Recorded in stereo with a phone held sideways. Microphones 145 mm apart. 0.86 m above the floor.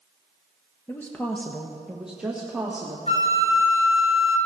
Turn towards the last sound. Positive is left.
turn(degrees=40)  # may be behind; listen again after turning